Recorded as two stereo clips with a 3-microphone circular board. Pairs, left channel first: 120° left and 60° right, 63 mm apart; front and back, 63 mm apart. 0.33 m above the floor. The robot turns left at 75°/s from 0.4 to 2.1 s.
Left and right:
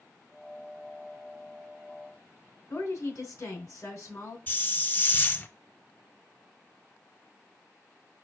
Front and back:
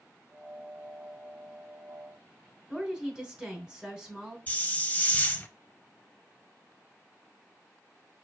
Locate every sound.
2.7 s a woman speaking: 100° left, 3 m
4.5 s a hiss: 65° left, 0.5 m